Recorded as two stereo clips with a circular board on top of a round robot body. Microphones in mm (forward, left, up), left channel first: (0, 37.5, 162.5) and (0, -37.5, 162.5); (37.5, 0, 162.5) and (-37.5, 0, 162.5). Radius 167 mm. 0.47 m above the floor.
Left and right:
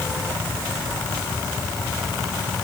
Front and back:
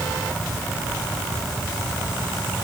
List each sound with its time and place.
Only background noise.